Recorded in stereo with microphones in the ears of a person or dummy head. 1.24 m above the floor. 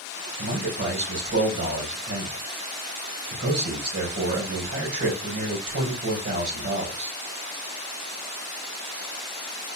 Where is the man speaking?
65° right (ahead or behind), 4 m.